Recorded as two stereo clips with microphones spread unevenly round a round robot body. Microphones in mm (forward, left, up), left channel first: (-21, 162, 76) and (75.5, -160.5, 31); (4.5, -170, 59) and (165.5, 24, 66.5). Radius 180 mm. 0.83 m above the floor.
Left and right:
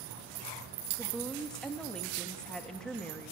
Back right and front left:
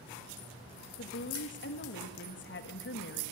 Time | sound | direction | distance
1.0 | a woman speaking | 160° right | 1.6 m